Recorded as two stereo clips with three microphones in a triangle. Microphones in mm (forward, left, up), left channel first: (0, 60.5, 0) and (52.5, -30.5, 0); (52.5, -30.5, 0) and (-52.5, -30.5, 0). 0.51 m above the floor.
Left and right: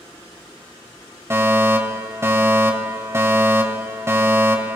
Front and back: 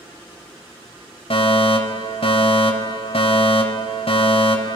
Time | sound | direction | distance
1.3 | a fire alarm | straight ahead | 3.5 m